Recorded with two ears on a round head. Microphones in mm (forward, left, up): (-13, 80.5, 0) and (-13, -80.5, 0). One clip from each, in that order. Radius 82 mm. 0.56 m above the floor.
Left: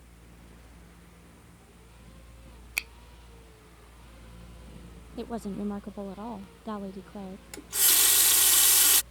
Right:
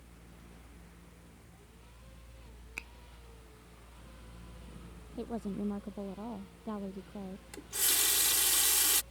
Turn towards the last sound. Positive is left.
turn(degrees=15)  # may be behind; listen again after turning